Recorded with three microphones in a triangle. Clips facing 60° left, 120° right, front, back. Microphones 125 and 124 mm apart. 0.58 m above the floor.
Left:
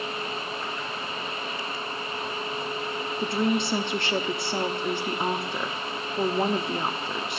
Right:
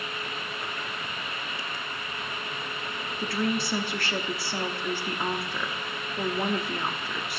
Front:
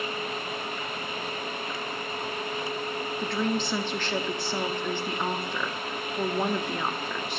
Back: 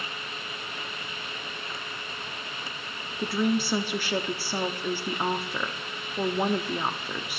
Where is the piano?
I don't hear a piano.